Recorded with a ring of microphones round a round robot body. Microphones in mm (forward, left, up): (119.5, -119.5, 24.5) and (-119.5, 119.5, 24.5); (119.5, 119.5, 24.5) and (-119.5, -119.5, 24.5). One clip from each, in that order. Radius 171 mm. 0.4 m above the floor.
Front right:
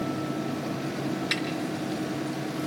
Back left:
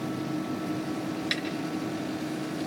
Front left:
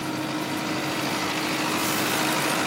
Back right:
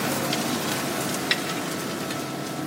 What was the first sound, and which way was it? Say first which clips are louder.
A snare drum: front right 2 dB, back right 4 dB; 135° right.